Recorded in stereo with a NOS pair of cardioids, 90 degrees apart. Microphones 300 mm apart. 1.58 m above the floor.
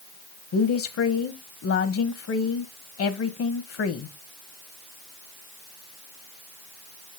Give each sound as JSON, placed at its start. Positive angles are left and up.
{"t": 0.5, "sound": "a woman speaking", "azimuth_deg": 55, "distance_m": 1.3}